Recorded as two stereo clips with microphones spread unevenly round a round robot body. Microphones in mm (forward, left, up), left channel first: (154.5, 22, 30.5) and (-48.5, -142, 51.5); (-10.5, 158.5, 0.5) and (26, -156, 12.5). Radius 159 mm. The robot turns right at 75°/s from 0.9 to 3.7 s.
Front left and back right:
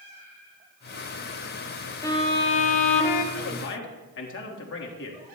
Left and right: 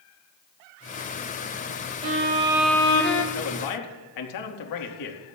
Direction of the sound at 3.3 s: 55° left.